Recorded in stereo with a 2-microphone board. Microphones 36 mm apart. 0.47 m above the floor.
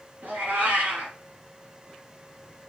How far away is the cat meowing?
About 1.7 m.